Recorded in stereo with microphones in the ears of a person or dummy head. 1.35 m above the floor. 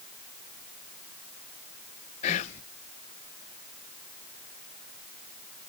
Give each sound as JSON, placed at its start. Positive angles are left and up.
{"t": 2.2, "sound": "whispering", "side_deg": 35, "distance_m": 0.6}